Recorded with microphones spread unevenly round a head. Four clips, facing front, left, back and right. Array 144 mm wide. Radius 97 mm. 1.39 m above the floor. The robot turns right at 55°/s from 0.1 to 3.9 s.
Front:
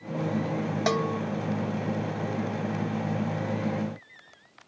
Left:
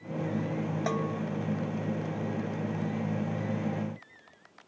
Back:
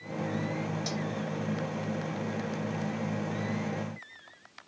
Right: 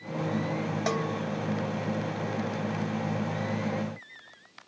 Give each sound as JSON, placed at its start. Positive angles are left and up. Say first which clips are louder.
{"t": 0.9, "sound": "a bell", "louder": "right 2 dB, front 8 dB", "azimuth_deg": -25}